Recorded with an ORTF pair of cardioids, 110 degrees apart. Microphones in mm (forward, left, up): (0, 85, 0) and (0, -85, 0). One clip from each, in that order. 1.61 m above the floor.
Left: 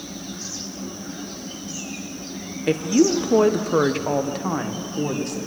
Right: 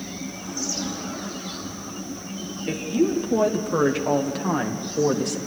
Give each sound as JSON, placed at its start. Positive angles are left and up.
{"t": 2.7, "sound": "a woman speaking", "azimuth_deg": 55, "distance_m": 1.4}